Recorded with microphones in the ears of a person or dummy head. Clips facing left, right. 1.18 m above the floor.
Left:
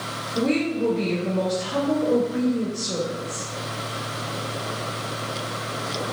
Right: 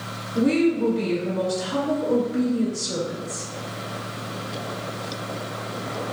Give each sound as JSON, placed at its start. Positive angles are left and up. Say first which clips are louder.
{"t": 0.3, "sound": "a woman speaking", "louder": "right 3 dB", "side_deg": -10, "distance_m": 1.9}